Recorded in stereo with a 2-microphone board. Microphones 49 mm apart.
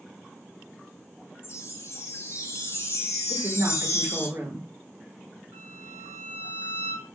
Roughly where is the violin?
Right.